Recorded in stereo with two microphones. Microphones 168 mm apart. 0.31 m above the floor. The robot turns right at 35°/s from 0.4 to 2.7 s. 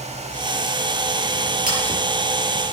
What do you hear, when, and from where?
1.7 s scissors: 55° right (ahead or behind), 7.5 m